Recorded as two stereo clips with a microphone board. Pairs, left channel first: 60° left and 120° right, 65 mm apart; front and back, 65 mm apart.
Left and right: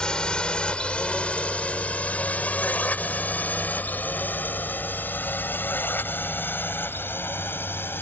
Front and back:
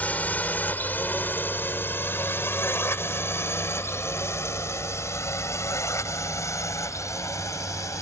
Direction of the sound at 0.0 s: 5° left.